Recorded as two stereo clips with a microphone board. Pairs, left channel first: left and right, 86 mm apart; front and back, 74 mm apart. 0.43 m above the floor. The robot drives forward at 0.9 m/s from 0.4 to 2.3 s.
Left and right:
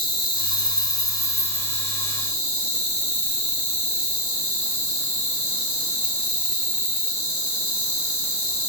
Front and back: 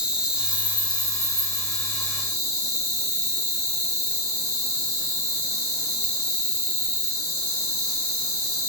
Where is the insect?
100° left, 1.0 m; by 8.7 s 155° left, 2 m.